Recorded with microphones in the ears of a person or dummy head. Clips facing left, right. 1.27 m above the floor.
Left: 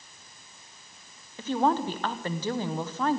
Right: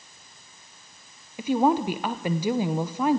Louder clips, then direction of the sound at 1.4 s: Right 4 dB; 10° right (ahead or behind).